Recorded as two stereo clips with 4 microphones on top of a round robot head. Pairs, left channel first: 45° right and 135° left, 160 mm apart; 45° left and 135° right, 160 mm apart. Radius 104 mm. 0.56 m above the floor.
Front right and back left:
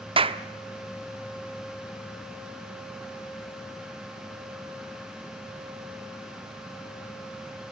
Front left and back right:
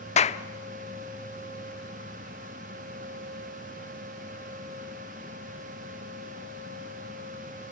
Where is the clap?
85° left, 0.9 m.